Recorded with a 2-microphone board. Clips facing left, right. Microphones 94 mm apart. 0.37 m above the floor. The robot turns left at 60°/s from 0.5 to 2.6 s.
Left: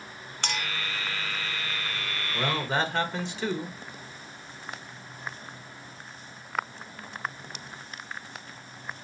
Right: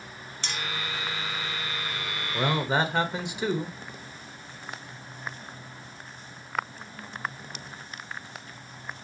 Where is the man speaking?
20° right (ahead or behind), 1.1 m; by 3.8 s 15° right (ahead or behind), 1.1 m.